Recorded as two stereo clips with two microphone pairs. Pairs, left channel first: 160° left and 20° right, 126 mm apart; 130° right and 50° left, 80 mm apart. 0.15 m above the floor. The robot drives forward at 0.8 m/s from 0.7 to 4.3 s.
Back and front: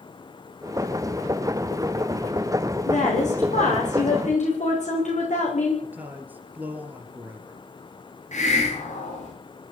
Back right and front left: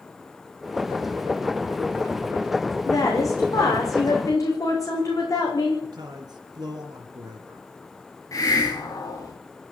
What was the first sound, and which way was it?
A woman speaking, 175° right.